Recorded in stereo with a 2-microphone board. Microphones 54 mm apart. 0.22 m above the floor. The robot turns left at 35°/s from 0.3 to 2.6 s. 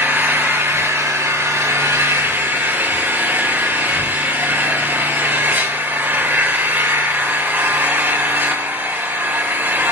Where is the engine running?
45° right, 3 m; by 9.9 s 125° right, 3 m.